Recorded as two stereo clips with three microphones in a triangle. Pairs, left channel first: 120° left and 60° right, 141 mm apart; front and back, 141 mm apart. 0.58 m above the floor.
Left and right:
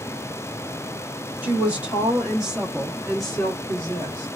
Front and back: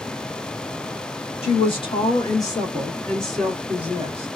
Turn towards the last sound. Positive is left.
turn(degrees=180)